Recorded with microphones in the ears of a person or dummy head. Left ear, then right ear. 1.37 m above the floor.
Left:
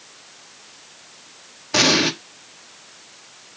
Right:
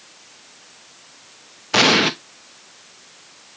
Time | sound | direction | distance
1.7 | an explosion | 45° right (ahead or behind) | 0.9 m